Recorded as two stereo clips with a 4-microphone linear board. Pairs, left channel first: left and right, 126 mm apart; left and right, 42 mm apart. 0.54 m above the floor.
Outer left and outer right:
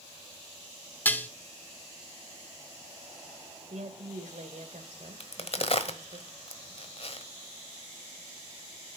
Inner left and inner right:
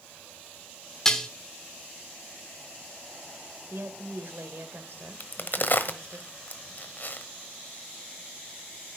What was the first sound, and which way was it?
Dishes clattering, 15° left (ahead or behind).